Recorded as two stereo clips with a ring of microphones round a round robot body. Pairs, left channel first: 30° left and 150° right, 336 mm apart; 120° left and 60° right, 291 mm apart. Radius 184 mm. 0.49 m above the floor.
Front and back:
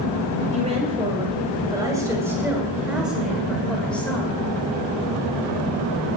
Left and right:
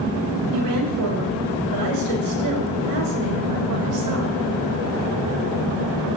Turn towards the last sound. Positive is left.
turn(degrees=-55)